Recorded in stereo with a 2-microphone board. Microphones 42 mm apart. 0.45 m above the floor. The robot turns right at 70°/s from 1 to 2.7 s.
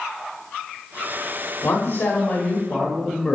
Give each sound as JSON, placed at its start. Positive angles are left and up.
{"t": 1.6, "sound": "a man speaking", "azimuth_deg": 95, "distance_m": 1.5}